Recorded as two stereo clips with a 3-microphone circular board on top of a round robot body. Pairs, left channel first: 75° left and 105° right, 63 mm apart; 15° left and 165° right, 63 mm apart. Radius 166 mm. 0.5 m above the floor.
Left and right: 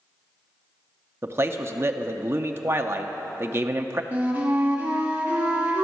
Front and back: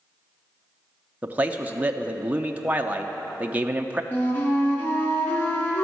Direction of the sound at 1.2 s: 115° right.